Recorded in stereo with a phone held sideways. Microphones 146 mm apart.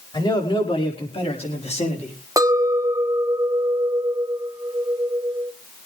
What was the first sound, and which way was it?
A man speaking, 30° left (ahead or behind).